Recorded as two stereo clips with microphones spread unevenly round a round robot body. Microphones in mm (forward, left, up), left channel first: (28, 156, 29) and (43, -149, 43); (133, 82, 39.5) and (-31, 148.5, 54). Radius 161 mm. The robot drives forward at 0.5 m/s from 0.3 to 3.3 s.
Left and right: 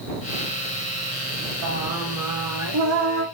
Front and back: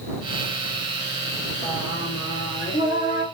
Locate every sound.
1.6 s singing: 110° right, 1.2 m; by 3.2 s 140° right, 1.7 m